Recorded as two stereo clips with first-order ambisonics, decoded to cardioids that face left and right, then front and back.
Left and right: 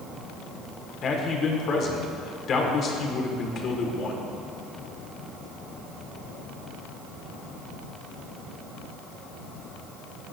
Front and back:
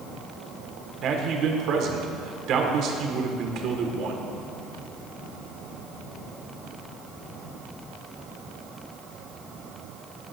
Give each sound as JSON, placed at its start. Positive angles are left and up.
{"t": 1.0, "sound": "a man speaking", "azimuth_deg": 140, "distance_m": 1.6}